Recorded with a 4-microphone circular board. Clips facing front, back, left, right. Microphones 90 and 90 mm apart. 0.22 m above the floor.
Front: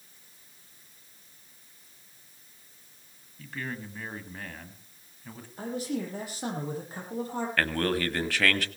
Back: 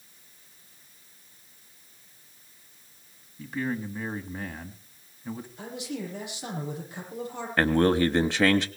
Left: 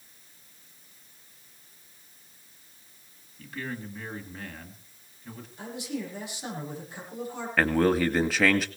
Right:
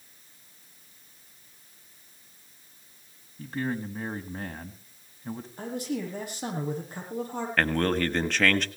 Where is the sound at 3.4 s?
115° right, 1.9 m.